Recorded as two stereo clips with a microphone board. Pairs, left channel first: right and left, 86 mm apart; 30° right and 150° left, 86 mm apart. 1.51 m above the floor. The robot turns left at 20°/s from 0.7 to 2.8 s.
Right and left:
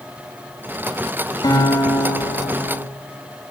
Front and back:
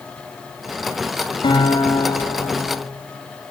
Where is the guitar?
50° right, 6 m; by 2.8 s 80° right, 6 m.